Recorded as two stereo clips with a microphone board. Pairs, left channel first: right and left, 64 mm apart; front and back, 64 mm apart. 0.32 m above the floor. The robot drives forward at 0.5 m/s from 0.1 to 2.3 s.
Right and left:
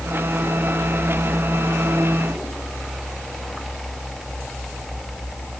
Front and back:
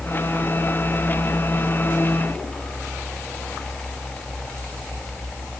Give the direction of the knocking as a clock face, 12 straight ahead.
No knocking in this recording.